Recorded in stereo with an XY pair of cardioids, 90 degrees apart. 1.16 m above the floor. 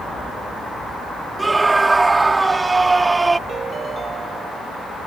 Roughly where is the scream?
Ahead right.